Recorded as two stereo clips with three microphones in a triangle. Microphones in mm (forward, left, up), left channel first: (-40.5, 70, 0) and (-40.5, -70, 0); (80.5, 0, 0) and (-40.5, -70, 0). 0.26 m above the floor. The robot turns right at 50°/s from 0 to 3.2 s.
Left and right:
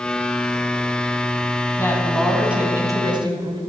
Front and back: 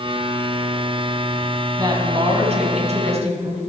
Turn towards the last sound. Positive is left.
turn(degrees=-135)